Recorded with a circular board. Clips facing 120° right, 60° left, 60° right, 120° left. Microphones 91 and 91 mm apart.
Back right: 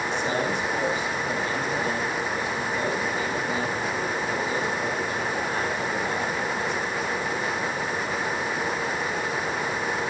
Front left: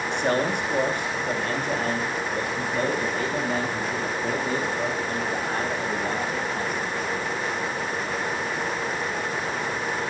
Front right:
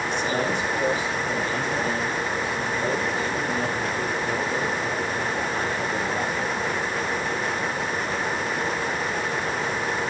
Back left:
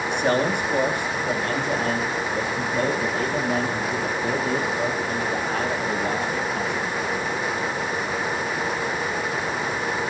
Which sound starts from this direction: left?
A man speaking, at 0.1 s.